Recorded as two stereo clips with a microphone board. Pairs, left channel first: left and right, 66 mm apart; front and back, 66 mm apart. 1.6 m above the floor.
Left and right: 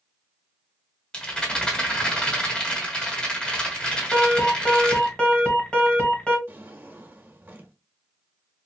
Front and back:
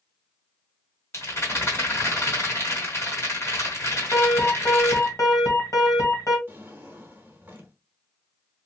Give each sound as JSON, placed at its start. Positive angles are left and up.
{"t": 1.1, "sound": "a rattle", "azimuth_deg": 20, "distance_m": 2.0}
{"t": 4.1, "sound": "an alarm", "azimuth_deg": 20, "distance_m": 1.8}
{"t": 6.5, "sound": "a drawer", "azimuth_deg": -125, "distance_m": 1.2}